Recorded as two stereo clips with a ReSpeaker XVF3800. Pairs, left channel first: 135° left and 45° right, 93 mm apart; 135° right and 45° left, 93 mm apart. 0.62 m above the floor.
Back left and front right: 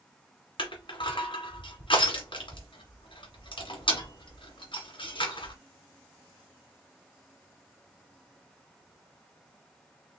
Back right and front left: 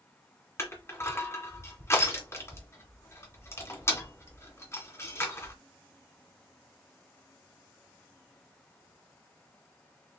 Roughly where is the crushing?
Behind.